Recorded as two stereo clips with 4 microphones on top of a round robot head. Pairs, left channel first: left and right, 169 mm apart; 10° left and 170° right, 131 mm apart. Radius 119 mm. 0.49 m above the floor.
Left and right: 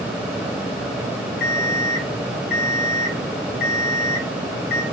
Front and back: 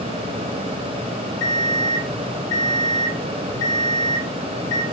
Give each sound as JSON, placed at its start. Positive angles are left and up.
{"t": 1.4, "sound": "an alarm clock", "azimuth_deg": -55, "distance_m": 2.0}